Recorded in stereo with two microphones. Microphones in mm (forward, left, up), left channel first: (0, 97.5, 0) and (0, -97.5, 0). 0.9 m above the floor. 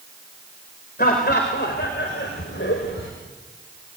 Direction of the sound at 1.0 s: 50° left (ahead or behind).